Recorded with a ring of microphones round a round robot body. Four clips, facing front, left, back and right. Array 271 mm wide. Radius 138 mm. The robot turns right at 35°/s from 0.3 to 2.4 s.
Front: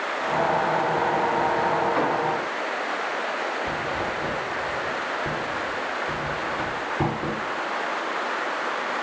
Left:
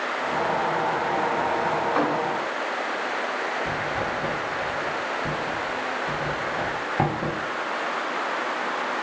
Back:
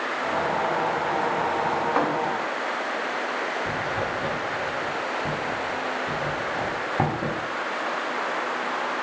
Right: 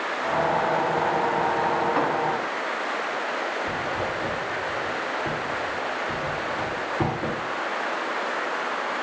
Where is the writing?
135° left, 1.3 m.